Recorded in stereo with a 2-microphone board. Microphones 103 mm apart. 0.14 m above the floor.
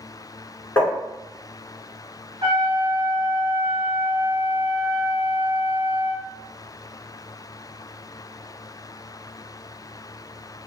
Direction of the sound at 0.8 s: 20° left (ahead or behind).